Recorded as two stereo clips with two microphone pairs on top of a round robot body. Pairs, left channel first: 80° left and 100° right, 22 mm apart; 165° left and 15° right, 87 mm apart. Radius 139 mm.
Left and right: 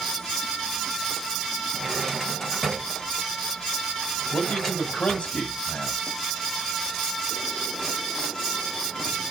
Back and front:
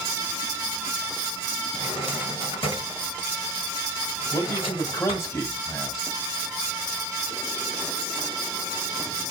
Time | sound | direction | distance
1.7 | a drawer | 165° left | 1.8 m
4.3 | a man speaking | 110° left | 1.7 m